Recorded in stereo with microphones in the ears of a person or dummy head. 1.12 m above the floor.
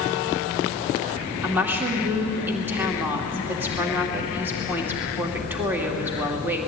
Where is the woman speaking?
10° right (ahead or behind), 2.5 m.